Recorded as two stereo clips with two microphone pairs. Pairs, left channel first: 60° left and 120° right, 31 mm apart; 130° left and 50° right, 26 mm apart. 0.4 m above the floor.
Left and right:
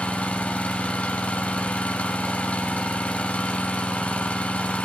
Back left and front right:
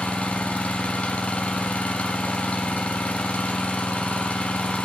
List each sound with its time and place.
0.0 s an engine running: 100° left, 1.5 m